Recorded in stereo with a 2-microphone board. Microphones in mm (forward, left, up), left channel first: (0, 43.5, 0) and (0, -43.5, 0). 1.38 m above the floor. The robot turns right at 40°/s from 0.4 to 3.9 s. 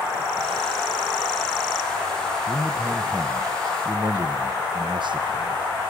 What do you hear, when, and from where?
2.5 s a man speaking: 175° right, 1.0 m; by 5.9 s 120° right, 1.0 m